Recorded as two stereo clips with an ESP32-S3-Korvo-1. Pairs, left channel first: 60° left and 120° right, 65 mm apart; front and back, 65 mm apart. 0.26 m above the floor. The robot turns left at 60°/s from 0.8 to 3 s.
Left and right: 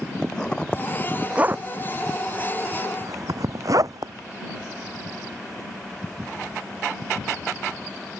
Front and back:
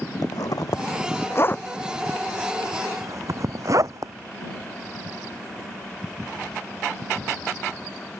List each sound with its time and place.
0.2 s a zipper: 15° right; by 4.1 s 145° right